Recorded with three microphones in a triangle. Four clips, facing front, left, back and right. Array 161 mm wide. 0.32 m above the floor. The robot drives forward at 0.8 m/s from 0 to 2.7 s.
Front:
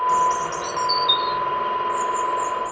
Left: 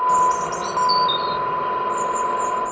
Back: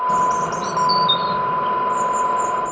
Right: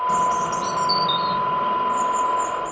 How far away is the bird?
About 1.4 m.